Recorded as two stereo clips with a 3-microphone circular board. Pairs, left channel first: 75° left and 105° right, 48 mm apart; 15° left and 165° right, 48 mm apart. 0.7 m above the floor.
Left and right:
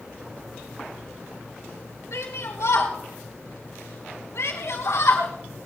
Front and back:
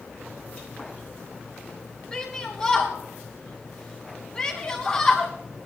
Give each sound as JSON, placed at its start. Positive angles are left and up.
{"t": 2.1, "sound": "a shout", "azimuth_deg": 90, "distance_m": 6.5}